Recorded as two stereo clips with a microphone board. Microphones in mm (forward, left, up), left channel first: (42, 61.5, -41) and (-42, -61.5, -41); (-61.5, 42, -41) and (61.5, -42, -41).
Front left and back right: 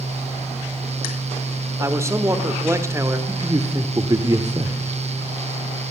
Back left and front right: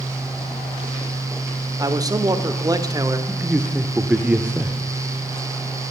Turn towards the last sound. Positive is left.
turn(degrees=-105)